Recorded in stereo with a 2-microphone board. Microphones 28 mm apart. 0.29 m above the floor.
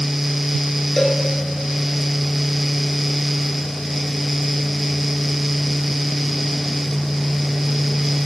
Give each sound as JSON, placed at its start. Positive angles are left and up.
{"t": 1.0, "sound": "a cowbell", "side_deg": 25, "distance_m": 2.5}